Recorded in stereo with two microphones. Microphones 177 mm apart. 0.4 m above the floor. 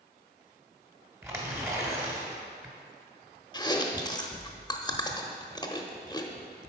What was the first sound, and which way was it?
Tearing paper, 15° right (ahead or behind).